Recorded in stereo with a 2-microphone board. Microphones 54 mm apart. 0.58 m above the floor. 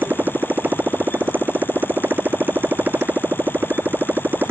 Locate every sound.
0.0 s a motorcycle: 35° right (ahead or behind)